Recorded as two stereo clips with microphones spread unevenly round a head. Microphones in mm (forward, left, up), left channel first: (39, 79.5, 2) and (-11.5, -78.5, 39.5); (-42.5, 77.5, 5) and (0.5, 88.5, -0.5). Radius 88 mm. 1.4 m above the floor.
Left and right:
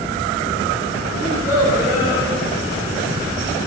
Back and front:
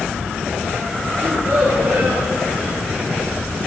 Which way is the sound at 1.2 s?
35° right.